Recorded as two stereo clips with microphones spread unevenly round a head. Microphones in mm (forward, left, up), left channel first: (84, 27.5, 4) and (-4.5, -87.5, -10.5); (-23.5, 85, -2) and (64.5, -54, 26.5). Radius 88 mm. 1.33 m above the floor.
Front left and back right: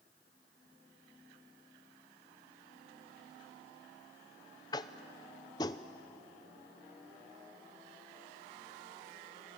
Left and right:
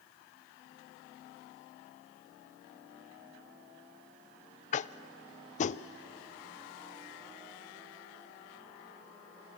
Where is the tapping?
120° left, 0.5 m.